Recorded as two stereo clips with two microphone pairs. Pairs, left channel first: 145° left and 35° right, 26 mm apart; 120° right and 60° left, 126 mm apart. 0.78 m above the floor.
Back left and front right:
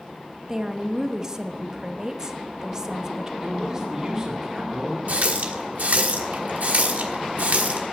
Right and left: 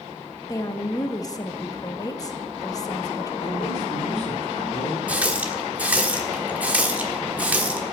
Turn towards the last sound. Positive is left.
turn(degrees=-20)